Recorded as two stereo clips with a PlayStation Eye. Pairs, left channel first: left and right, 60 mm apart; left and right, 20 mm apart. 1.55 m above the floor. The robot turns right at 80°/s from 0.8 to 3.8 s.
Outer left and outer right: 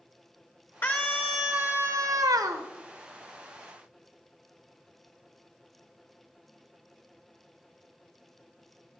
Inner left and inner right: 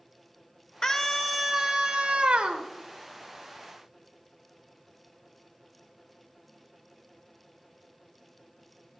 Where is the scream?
140° left, 1.6 m; by 2.7 s 75° right, 1.6 m.